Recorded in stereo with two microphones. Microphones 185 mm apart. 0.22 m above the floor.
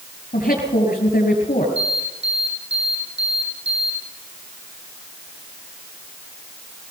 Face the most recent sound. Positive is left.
turn(degrees=-85)